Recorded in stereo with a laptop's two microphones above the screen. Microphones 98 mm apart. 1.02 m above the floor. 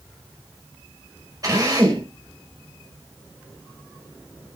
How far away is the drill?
About 6.5 m.